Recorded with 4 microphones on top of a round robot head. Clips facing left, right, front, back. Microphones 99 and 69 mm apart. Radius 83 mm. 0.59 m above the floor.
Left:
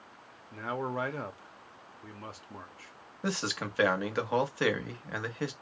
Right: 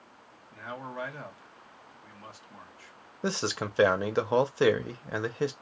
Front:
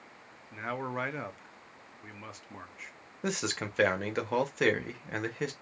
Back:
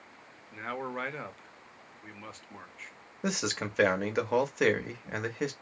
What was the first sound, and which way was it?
A man speaking, 80° left.